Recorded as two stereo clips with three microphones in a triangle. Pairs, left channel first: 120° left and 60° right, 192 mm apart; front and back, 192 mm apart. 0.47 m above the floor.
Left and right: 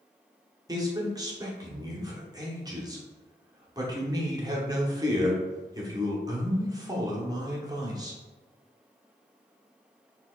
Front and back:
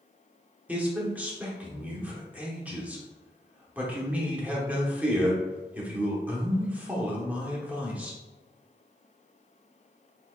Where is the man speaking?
105° right, 0.9 m.